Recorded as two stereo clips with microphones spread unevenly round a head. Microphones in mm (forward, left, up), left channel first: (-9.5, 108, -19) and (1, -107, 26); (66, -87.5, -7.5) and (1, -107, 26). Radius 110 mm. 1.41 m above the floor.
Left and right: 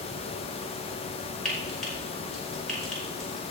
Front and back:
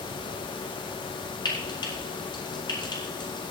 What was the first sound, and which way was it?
Frying, 5° left.